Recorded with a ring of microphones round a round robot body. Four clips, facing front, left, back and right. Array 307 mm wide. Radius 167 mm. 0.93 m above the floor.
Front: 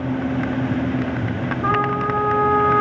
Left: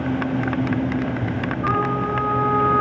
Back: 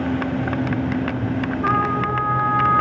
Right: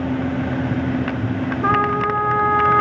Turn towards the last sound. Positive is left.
turn(degrees=-90)